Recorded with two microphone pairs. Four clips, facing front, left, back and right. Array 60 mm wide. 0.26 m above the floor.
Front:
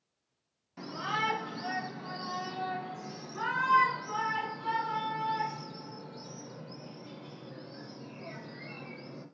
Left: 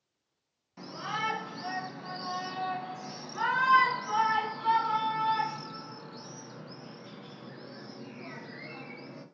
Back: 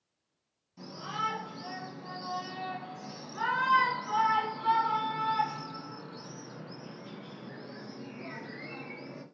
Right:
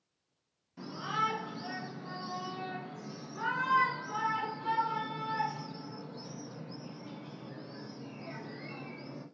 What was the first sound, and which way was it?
A shout, 35° left.